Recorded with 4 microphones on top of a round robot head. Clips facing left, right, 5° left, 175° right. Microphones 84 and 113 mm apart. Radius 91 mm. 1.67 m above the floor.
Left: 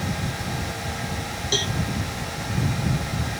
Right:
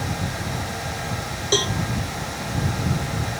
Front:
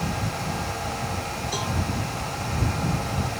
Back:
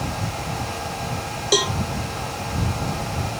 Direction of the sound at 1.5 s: 155° right.